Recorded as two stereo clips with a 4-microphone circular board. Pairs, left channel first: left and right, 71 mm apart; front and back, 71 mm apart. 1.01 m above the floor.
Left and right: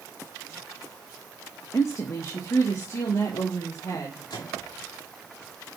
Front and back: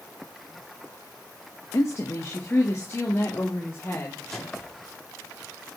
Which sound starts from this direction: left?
A microwave, at 4.3 s.